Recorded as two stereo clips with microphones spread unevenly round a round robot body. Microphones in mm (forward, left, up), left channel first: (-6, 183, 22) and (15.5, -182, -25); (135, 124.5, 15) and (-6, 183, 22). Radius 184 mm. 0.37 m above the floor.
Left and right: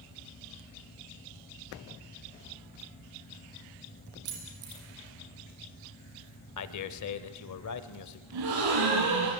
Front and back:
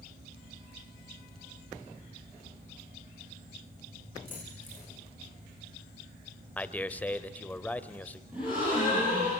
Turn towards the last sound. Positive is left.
turn(degrees=-115)